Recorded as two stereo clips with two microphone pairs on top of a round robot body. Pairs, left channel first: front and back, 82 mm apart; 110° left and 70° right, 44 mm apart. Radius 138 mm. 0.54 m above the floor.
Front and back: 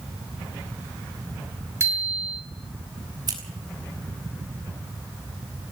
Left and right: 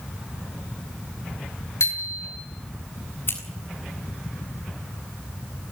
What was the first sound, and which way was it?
A bicycle bell, 125° left.